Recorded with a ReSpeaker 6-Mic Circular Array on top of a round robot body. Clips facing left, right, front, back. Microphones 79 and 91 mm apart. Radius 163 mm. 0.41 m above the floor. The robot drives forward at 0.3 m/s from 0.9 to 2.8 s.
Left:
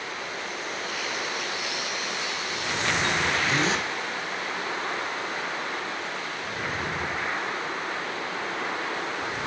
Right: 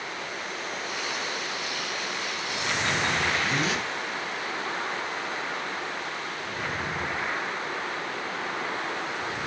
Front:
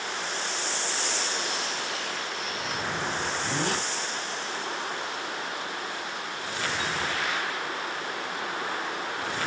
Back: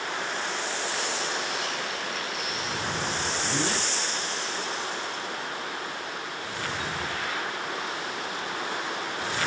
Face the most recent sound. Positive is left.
turn(degrees=35)